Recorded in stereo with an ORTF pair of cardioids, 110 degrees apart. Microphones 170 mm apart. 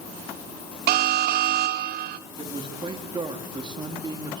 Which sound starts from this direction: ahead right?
A man speaking, at 2.4 s.